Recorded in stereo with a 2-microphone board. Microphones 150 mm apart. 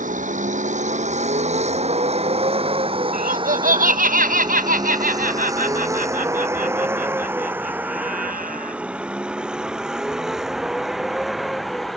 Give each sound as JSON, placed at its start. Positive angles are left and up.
{"t": 0.0, "sound": "a vehicle", "side_deg": -65}
{"t": 3.1, "sound": "laughter", "side_deg": -80}